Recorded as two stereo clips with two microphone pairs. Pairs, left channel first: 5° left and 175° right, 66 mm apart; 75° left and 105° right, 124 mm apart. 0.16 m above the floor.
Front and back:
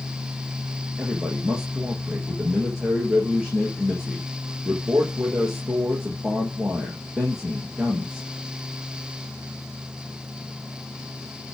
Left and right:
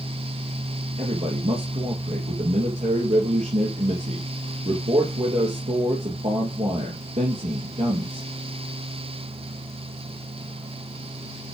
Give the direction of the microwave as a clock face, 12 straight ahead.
I don't hear a microwave.